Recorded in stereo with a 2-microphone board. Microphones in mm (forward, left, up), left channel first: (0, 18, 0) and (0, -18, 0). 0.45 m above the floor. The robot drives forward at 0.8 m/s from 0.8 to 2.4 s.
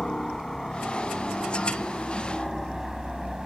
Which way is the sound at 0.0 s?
15° left (ahead or behind).